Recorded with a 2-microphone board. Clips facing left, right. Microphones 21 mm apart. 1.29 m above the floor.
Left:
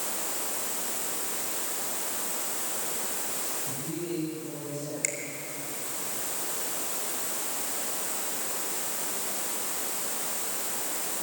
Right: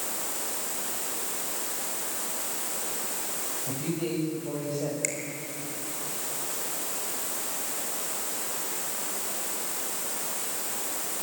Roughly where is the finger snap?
Centre.